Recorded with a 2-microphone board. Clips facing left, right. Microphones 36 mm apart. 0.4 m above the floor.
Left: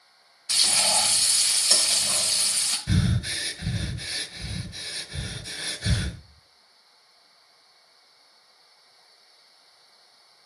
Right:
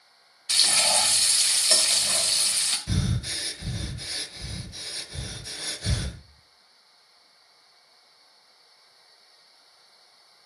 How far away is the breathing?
About 1.4 m.